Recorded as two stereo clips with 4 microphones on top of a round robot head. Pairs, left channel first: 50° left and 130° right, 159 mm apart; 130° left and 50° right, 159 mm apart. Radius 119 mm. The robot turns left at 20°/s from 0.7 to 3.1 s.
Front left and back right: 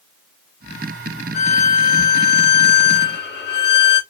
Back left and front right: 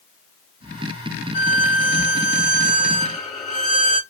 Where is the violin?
75° left, 2.0 m; by 4.0 s 40° left, 2.0 m.